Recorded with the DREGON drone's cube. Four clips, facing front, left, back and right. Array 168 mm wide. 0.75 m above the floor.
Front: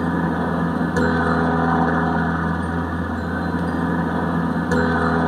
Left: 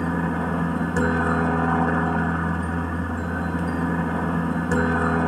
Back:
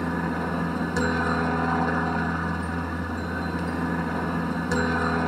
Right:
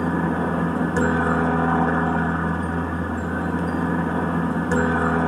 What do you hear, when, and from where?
0.0 s a helicopter: 15° right